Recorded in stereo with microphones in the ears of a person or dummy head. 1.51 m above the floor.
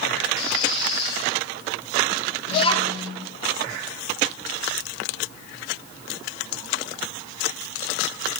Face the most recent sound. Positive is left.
turn(degrees=30)  # may be behind; listen again after turning